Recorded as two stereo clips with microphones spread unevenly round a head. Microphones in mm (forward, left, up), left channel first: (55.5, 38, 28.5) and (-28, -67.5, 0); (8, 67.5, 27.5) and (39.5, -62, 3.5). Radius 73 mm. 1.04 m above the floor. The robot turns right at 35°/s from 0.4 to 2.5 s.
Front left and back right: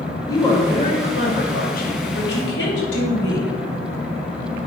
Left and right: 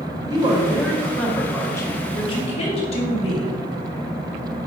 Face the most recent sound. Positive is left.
turn(degrees=60)